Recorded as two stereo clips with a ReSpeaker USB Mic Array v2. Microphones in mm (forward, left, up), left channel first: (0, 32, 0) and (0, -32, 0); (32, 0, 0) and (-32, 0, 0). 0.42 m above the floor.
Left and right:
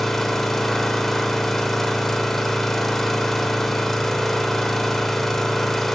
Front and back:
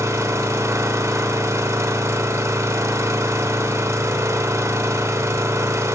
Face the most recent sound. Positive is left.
turn(degrees=175)